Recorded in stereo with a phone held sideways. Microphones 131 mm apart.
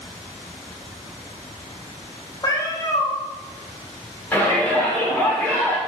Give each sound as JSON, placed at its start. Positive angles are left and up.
{"t": 2.4, "sound": "a cat meowing", "side_deg": 30, "distance_m": 1.3}
{"t": 4.3, "sound": "a shout", "side_deg": 15, "distance_m": 2.5}